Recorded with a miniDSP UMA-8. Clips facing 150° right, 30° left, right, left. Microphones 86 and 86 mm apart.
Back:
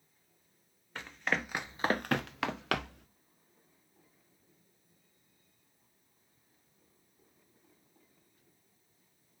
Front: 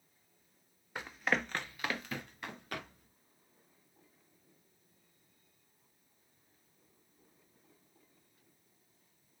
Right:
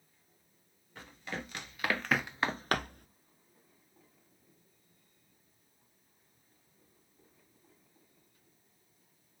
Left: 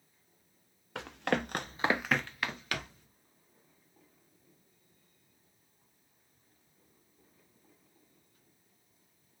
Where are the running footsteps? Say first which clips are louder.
Front 1 dB, left 10 dB; 110° left, 1.7 m; by 3.1 s 125° right, 1.7 m.